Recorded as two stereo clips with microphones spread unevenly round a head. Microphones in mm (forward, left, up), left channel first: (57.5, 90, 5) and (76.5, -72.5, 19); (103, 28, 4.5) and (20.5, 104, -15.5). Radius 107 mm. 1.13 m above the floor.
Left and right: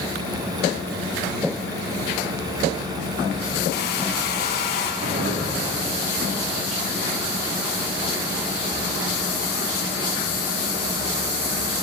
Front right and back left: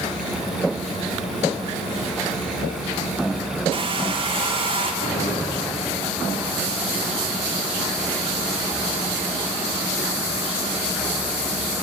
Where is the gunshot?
70° right, 3 m.